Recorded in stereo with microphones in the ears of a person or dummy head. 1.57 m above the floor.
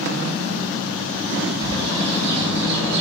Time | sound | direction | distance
1.6 | a bird | 30° right (ahead or behind) | 5.5 m